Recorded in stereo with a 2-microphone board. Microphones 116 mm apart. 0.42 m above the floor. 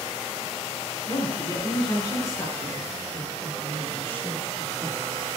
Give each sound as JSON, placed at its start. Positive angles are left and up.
{"t": 1.1, "sound": "a woman speaking", "side_deg": 35, "distance_m": 4.5}